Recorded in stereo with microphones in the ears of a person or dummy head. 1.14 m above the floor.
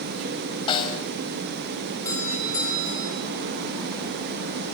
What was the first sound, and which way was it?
A snare drum, 30° left (ahead or behind).